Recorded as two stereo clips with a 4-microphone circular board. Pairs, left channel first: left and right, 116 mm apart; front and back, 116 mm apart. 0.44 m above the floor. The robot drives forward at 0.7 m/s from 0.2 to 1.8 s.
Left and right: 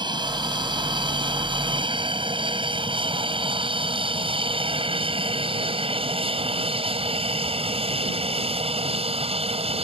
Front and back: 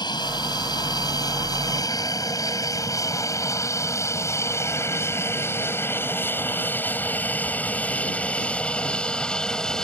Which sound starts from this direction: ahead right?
An aircraft, at 0.0 s.